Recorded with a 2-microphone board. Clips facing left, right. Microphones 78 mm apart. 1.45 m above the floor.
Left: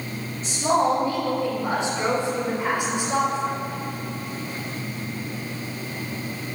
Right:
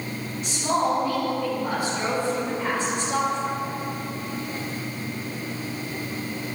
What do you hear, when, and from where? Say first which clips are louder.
0.4 s a woman speaking: left 3 dB; 35° left (ahead or behind), 6 m; by 3.6 s 10° left (ahead or behind), 5 m